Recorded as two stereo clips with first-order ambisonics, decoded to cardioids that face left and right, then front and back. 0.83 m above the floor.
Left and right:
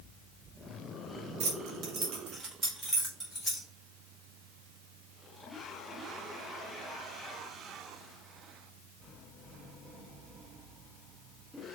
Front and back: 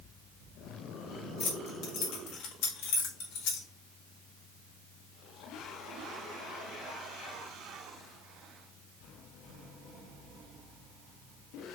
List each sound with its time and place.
1.4 s keys jangling: 65° right, 0.7 m; by 3.7 s straight ahead, 1.3 m